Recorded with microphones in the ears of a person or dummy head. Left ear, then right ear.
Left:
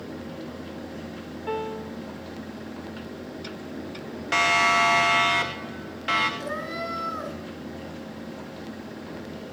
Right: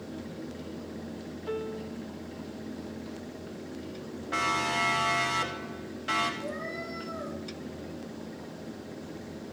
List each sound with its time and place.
1.5 s a piano: 10° left (ahead or behind), 0.6 m
4.3 s a siren: 70° left (ahead or behind), 3 m; by 6.3 s 25° left (ahead or behind), 3.5 m
6.4 s a cat meowing: 75° left (ahead or behind), 6 m